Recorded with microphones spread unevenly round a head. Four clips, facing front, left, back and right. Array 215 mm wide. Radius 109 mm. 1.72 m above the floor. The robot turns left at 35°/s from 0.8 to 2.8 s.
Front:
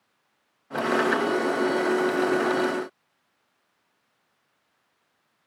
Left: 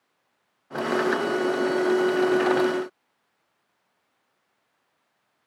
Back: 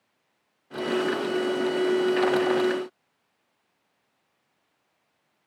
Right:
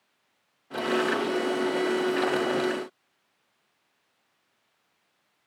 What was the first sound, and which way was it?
Only background noise.